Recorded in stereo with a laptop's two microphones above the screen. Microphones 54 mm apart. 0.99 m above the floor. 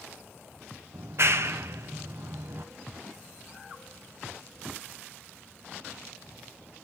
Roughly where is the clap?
Right.